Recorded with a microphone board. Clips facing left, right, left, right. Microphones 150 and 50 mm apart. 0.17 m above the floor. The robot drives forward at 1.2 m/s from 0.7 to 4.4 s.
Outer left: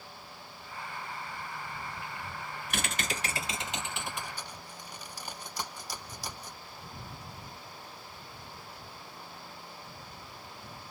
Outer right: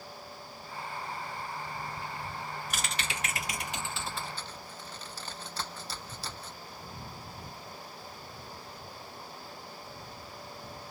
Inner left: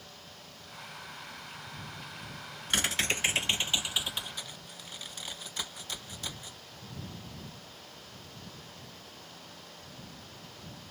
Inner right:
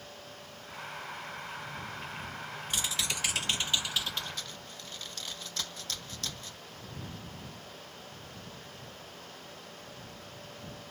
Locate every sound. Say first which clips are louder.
2.7 s typing on a keyboard: outer left 6 dB, inner left 6 dB; 65° left (ahead or behind); by 6.6 s 15° left (ahead or behind)